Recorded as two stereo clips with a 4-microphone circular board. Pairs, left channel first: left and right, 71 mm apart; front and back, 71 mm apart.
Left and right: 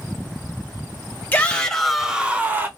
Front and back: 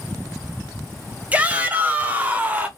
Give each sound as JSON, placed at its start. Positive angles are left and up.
{"t": 1.3, "sound": "a shout", "azimuth_deg": 130, "distance_m": 0.9}